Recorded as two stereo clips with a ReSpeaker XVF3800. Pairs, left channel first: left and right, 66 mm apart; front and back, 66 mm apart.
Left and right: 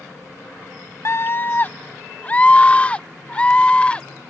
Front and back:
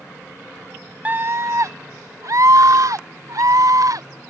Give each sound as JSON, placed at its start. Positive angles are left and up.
{"t": 1.1, "sound": "a scream", "azimuth_deg": 120}